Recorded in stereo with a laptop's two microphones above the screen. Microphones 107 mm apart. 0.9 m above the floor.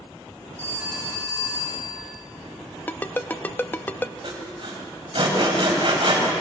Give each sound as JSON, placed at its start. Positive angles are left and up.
{"t": 0.6, "sound": "a phone ringing", "side_deg": -25, "distance_m": 7.5}
{"t": 2.9, "sound": "a ringtone", "side_deg": 15, "distance_m": 0.5}
{"t": 4.2, "sound": "sawing", "side_deg": -50, "distance_m": 4.0}